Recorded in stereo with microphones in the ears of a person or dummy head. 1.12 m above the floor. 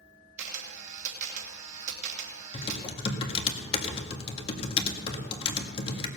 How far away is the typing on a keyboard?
About 1.8 m.